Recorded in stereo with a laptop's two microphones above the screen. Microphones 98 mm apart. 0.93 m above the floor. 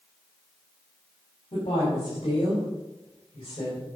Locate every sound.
1.5 s a woman speaking: 60° left (ahead or behind), 3 m; by 3.9 s 45° left (ahead or behind), 4.5 m